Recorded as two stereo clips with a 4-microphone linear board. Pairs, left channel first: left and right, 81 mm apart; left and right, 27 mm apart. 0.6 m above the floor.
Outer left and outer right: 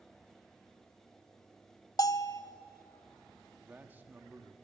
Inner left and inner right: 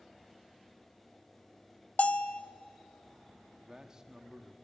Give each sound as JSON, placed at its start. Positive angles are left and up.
{"t": 2.0, "sound": "a bell", "side_deg": 55, "distance_m": 0.7}
{"t": 3.6, "sound": "a man speaking", "side_deg": -25, "distance_m": 1.2}